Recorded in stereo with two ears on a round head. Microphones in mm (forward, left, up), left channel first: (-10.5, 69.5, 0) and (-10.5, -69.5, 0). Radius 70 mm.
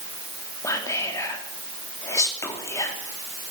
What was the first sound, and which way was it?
Whispering, 20° left (ahead or behind).